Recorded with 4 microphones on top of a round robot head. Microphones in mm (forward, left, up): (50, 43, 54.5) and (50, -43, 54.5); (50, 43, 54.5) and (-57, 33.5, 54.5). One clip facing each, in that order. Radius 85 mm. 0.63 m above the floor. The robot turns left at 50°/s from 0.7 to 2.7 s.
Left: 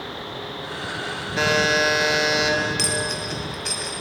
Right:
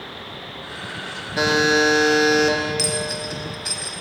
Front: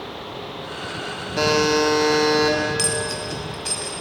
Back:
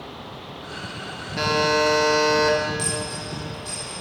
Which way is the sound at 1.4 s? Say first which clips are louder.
Right 3 dB, front 2 dB; 20° right.